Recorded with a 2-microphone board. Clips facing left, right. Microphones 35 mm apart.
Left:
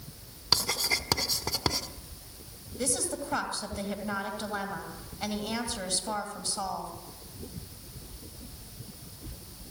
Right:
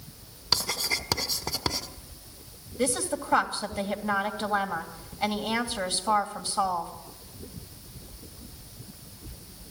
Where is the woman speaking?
25° right (ahead or behind), 2.5 m.